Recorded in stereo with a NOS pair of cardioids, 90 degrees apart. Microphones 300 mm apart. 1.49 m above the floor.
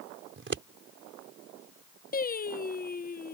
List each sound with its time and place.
0.4 s scissors: 35° right
2.1 s singing: 30° left